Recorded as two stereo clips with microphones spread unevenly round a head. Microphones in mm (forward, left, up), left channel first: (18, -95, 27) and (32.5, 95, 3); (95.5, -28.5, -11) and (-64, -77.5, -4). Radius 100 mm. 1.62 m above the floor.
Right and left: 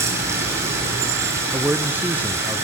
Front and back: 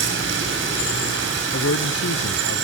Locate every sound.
0.0 s running water: 165° left, 8 m
1.5 s a man speaking: 5° left, 0.8 m